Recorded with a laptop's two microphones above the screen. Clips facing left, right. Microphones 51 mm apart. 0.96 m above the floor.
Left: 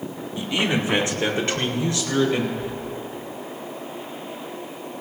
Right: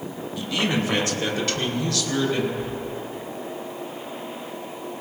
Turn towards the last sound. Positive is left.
turn(degrees=-50)  # may be behind; listen again after turning